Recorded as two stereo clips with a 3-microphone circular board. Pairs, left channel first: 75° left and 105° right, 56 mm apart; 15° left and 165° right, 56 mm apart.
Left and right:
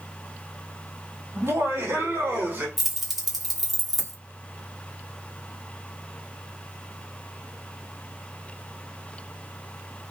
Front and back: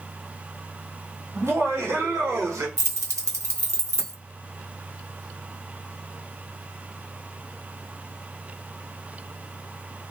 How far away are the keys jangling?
About 0.9 m.